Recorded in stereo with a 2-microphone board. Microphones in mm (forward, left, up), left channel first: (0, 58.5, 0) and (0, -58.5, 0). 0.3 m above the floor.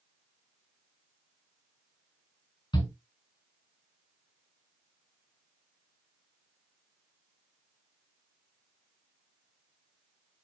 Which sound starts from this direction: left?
A shout, at 2.7 s.